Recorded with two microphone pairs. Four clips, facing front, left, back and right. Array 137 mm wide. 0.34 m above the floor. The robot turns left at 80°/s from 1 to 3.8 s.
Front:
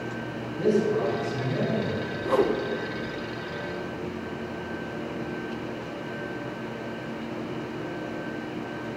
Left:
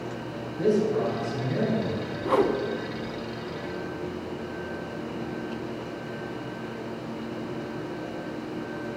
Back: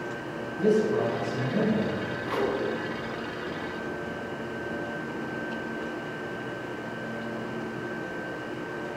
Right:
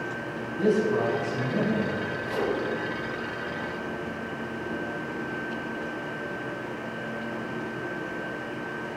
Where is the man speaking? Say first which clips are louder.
Even, even; 85° right, 3.5 m; by 2.0 s 160° right, 3.5 m.